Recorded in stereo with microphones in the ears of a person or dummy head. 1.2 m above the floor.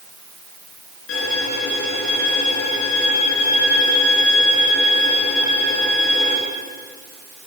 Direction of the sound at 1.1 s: 80° left.